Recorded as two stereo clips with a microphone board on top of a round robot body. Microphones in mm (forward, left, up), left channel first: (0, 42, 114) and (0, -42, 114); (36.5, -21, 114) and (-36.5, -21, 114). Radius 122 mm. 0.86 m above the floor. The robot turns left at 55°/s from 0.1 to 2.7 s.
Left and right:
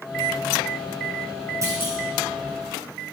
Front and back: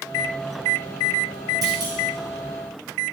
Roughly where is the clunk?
Behind right.